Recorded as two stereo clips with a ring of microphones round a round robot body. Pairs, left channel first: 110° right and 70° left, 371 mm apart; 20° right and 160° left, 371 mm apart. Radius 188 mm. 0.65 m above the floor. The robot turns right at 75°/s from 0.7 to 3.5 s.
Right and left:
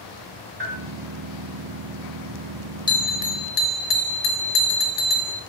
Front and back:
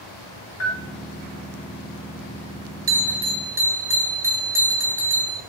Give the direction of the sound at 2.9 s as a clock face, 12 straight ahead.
6 o'clock.